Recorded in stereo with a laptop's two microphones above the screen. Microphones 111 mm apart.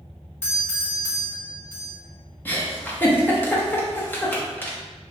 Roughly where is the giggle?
Centre.